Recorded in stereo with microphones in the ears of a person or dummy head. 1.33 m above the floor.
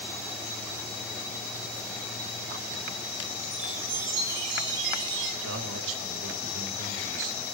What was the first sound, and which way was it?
A chime, 75° right (ahead or behind).